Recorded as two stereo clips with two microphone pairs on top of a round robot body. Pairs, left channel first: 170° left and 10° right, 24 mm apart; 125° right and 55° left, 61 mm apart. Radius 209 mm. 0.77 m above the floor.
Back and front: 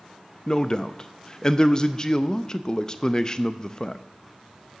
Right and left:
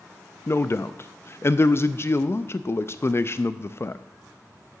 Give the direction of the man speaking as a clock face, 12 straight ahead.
4 o'clock.